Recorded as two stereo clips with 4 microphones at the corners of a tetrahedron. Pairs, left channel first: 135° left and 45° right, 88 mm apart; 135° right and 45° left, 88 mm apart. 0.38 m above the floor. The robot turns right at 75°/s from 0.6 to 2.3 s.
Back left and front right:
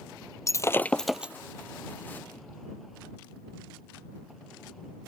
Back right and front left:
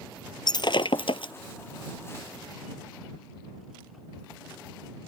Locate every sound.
0.5 s breaking glass: 170° right; by 1.3 s 115° right